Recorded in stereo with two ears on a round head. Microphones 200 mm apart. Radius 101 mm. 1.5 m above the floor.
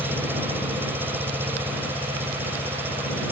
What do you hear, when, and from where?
0.0 s an engine running: 10° right (ahead or behind)